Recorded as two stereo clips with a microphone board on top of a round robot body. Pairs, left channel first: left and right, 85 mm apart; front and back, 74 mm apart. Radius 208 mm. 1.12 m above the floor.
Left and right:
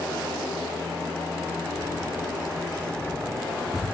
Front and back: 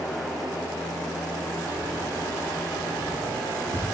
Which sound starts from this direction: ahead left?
Keys jangling, at 1.7 s.